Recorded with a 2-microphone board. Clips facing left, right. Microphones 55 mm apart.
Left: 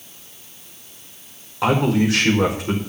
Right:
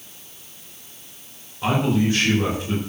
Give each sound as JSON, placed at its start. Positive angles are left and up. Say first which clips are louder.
{"t": 1.6, "sound": "a man speaking", "louder": "left 3 dB", "side_deg": 80, "distance_m": 4.5}